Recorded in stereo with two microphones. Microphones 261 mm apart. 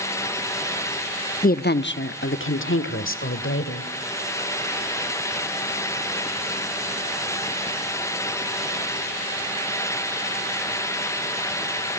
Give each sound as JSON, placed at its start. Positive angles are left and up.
{"t": 1.4, "sound": "a woman speaking", "side_deg": 30, "distance_m": 0.8}